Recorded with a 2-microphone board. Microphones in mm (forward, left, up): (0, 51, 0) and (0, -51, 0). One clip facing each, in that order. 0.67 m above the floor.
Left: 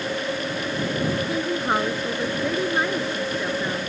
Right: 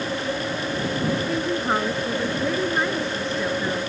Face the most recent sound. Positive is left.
turn(degrees=5)  # may be behind; listen again after turning